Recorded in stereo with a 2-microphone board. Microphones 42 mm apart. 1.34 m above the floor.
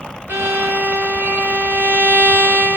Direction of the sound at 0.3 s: 55° right (ahead or behind).